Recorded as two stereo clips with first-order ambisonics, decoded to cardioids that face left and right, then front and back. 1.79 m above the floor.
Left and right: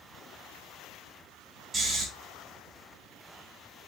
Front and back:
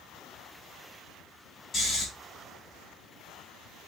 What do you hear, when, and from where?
1.7 s snoring: 35° right, 1.9 m